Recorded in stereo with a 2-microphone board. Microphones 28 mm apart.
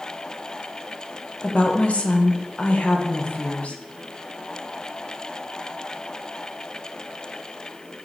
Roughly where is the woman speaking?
Left.